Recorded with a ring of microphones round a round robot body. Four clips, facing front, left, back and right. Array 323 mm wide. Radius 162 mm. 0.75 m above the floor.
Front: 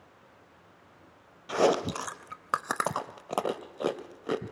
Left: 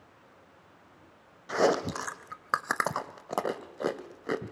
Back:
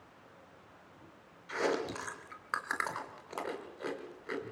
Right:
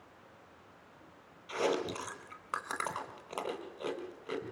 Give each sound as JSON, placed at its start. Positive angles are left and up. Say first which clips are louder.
{"t": 1.5, "sound": "chewing", "louder": "left 7 dB, front 8 dB", "azimuth_deg": 40, "distance_m": 1.0}